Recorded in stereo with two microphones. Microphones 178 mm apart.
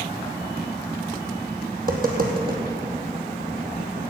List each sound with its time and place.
1.8 s tapping: 55° right (ahead or behind), 2 m